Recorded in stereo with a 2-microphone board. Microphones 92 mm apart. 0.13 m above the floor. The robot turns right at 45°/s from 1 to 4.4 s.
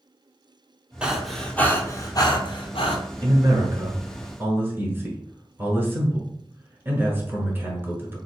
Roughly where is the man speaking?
Right.